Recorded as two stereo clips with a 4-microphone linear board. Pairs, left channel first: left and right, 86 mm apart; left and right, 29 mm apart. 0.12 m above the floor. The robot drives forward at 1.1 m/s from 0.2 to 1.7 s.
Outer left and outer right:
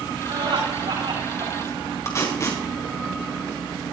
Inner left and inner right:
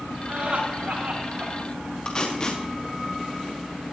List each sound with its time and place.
0.3 s laughter: 70° right (ahead or behind), 9 m; by 1.5 s 65° right (ahead or behind), 9.5 m
2.0 s tape being pulled: 35° left (ahead or behind), 5 m